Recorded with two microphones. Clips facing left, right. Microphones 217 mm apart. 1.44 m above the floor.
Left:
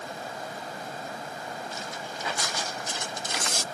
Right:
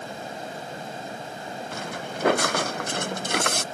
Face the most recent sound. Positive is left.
turn(degrees=-65)  # may be behind; listen again after turning